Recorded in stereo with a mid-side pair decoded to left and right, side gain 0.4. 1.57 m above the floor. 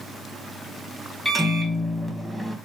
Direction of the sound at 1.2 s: 5° left.